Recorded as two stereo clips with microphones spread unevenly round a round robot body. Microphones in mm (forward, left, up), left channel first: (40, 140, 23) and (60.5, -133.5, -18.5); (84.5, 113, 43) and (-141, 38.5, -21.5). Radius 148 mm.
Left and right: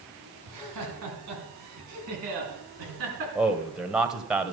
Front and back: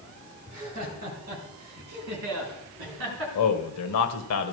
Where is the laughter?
105° right, 4.5 m; by 3.2 s 130° right, 5 m.